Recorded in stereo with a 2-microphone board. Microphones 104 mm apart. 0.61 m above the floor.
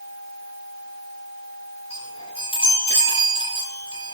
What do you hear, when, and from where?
1.9 s a chime: 65° left (ahead or behind), 7.5 m